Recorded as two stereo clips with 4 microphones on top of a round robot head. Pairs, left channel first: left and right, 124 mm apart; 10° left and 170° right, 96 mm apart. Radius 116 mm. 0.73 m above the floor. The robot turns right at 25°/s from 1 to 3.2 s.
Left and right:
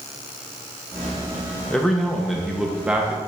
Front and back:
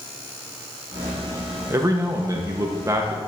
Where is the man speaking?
165° left, 0.8 m; by 3.2 s 155° right, 0.8 m.